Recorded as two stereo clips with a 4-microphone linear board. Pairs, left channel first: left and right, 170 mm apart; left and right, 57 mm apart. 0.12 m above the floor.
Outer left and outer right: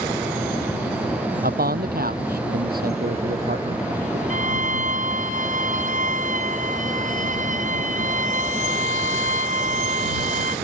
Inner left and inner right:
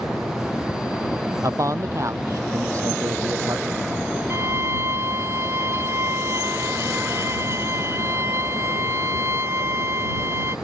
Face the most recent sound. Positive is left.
turn(degrees=-45)  # may be behind; listen again after turning